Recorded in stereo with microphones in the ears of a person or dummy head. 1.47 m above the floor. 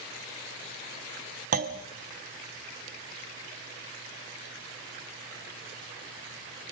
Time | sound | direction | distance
1.5 | a clunk | 45° right (ahead or behind) | 0.7 m